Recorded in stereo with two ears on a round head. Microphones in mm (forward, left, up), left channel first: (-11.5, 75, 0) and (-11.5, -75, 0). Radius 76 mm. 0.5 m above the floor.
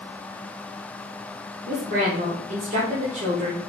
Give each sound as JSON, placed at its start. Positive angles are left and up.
{"t": 1.6, "sound": "a woman speaking", "side_deg": -45, "distance_m": 1.5}